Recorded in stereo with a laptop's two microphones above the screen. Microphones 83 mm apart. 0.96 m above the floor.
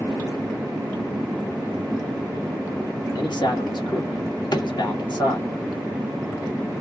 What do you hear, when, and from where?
3.1 s a man speaking: 65° left (ahead or behind), 1.6 m
4.5 s a drawer: 60° left (ahead or behind), 0.9 m